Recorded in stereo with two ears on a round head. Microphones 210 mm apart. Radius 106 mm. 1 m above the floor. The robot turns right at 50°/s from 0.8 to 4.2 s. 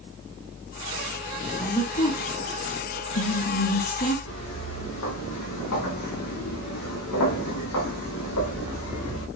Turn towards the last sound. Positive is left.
turn(degrees=80)